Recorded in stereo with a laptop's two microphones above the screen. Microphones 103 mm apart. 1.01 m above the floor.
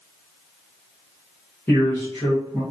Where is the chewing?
I don't hear chewing.